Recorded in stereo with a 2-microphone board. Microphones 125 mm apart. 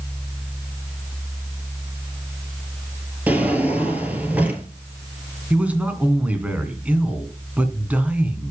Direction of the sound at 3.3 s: 10° right (ahead or behind).